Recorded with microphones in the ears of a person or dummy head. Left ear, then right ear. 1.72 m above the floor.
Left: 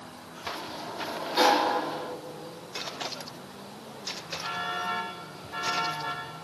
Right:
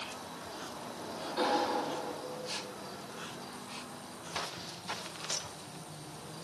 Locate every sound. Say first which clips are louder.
0.6 s a sliding door: left 6 dB; 45° left (ahead or behind), 1.7 m